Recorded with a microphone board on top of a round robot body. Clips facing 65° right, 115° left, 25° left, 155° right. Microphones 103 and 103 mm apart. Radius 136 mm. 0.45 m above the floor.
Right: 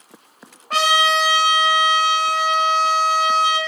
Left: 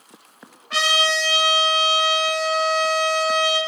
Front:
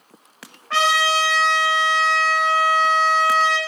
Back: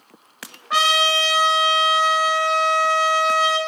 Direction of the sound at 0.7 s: 85° right.